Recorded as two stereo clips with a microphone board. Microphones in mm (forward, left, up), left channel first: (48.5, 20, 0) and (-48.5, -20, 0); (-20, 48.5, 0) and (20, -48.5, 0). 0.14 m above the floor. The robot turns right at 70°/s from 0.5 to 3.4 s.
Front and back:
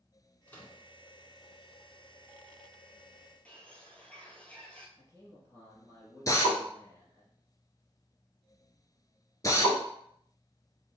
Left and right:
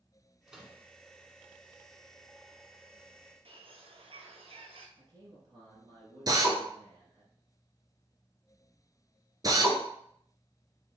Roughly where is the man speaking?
Ahead right.